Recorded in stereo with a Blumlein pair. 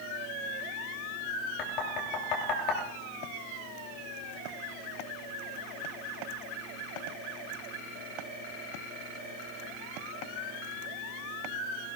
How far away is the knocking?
About 3 m.